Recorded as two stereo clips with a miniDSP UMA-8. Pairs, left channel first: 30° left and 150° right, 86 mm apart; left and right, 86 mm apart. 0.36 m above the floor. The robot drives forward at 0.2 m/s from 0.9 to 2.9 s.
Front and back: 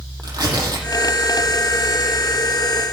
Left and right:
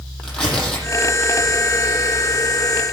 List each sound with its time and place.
0.2 s tearing paper: 165° left, 8.5 m